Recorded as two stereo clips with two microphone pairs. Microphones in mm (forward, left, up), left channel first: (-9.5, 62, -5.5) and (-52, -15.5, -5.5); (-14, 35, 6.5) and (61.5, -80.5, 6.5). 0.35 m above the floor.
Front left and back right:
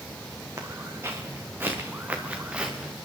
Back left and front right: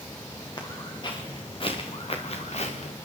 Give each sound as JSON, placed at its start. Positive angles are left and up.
{"t": 0.6, "sound": "footsteps", "azimuth_deg": -175, "distance_m": 3.5}